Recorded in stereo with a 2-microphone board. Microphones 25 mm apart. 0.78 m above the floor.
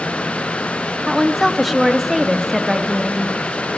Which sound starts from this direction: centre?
A woman speaking, at 1.1 s.